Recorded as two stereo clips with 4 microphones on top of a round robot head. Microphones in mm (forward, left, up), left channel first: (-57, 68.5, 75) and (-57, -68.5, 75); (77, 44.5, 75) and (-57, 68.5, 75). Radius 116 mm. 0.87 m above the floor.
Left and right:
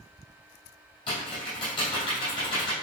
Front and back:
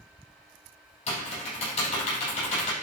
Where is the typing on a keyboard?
30° left, 4.5 m.